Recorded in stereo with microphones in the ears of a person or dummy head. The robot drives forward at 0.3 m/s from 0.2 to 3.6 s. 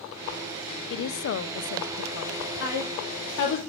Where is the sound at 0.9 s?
70° left (ahead or behind), 0.7 m; by 2.5 s 65° left (ahead or behind), 0.7 m.